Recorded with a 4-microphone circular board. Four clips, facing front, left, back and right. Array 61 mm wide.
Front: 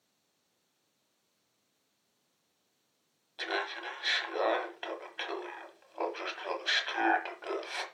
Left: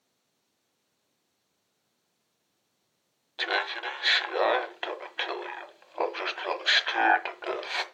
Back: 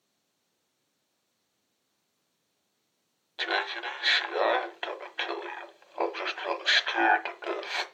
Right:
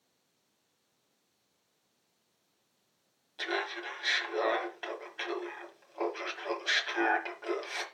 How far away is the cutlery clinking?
No cutlery clinking in this recording.